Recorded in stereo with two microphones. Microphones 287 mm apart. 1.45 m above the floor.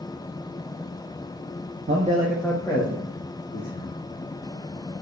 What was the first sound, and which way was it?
A man speaking, 45° right (ahead or behind).